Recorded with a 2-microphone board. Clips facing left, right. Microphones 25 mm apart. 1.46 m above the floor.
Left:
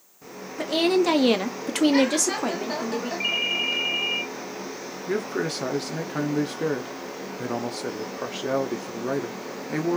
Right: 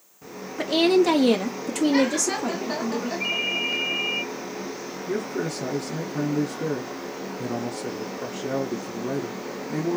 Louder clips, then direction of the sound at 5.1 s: Left 1 dB; 55° left (ahead or behind).